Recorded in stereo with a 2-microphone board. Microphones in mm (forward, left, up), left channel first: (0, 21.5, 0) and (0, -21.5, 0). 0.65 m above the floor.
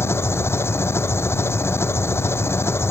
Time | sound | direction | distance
0.0 | an engine running | 80° left | ?